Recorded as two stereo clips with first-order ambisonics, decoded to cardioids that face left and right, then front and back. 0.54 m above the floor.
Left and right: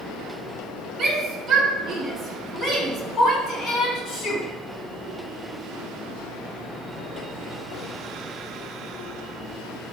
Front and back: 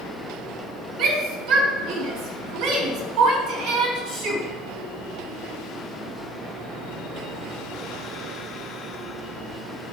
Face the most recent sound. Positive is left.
turn(degrees=140)